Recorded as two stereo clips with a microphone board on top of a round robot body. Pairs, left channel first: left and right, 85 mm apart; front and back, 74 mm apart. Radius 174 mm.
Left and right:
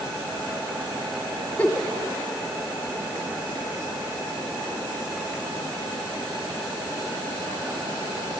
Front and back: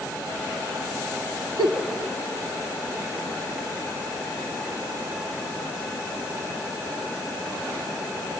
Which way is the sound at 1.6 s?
165° left.